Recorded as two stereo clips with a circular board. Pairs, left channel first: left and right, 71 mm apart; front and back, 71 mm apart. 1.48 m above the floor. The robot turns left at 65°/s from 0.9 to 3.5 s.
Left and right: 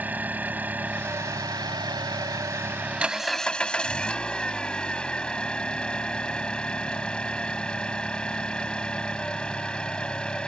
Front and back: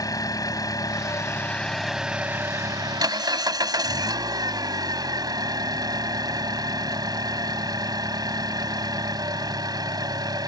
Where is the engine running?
25° right; by 10.5 s 165° left.